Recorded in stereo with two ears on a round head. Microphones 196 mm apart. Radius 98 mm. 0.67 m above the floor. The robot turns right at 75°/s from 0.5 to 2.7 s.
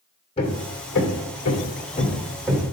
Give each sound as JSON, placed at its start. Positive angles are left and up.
{"t": 0.4, "sound": "hammering", "side_deg": 30, "distance_m": 2.5}